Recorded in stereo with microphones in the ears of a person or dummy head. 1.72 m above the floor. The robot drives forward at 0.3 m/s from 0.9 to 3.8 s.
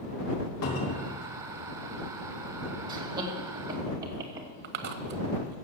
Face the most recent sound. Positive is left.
turn(degrees=-50)  # may be behind; listen again after turning